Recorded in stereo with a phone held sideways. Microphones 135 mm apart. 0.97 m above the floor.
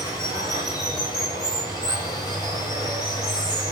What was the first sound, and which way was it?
Running water, 30° left (ahead or behind).